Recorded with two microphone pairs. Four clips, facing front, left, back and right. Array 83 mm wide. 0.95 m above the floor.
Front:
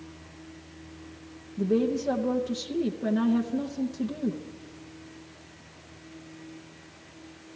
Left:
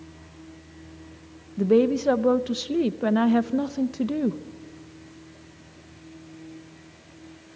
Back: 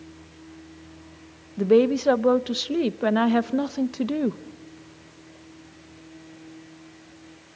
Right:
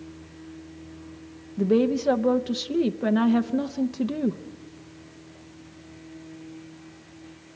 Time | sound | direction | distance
1.6 | a woman speaking | 165° left | 0.7 m